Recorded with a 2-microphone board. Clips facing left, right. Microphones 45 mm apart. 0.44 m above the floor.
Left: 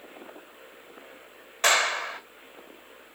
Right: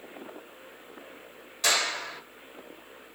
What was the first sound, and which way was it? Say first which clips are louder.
A clap: left 5 dB; 45° left (ahead or behind).